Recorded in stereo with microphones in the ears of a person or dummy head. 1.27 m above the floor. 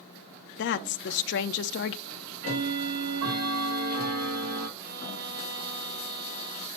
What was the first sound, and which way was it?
A woman speaking, 55° left (ahead or behind).